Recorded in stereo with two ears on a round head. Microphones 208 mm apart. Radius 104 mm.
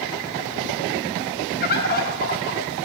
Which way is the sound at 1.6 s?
40° left (ahead or behind).